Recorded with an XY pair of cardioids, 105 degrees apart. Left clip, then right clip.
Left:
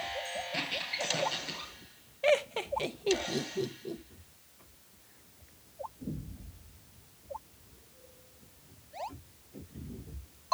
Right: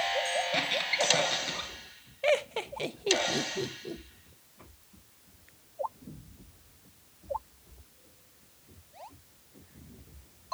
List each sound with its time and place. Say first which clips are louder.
0.5 s a squeak: right 3 dB; 70° right, 6.5 m
2.2 s laughter: even; 10° right, 1.0 m